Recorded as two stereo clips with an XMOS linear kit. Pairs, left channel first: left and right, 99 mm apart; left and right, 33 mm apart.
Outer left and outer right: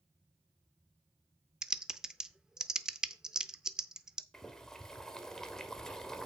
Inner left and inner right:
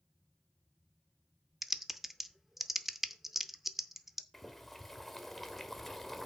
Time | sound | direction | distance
1.6 | typing on a keyboard | 5° right (ahead or behind) | 0.7 m
4.3 | boiling | 5° left (ahead or behind) | 1.4 m